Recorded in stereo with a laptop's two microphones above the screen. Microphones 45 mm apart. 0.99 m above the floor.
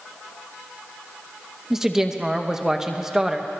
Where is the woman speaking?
10° right (ahead or behind), 0.9 m.